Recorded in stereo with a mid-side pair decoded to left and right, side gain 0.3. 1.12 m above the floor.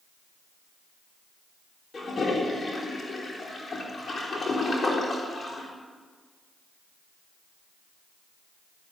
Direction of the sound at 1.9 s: 50° left.